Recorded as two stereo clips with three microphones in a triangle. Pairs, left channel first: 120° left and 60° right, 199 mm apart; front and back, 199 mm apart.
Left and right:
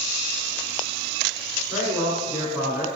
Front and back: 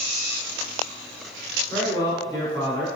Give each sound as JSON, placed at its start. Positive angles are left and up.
{"t": 1.7, "sound": "a man speaking", "azimuth_deg": 5, "distance_m": 1.2}